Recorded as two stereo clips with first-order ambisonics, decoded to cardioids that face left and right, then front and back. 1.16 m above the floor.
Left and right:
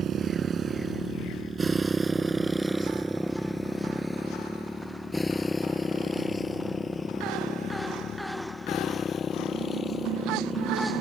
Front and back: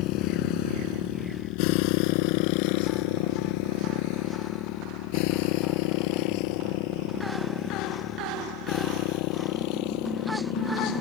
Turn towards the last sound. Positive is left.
turn(degrees=25)